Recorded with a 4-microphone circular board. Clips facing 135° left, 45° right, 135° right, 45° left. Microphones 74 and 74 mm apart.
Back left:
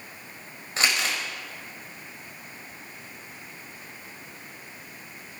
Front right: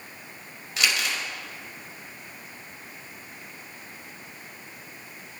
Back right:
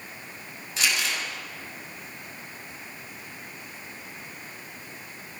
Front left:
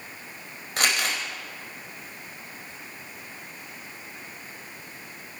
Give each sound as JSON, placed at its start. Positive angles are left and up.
{"t": 0.8, "sound": "crumpling", "azimuth_deg": 80, "distance_m": 4.5}